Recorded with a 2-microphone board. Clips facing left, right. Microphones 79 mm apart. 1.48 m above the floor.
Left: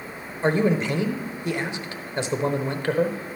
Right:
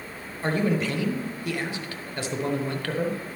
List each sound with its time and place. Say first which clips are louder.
0.4 s a man speaking: left 4 dB; 20° left (ahead or behind), 0.8 m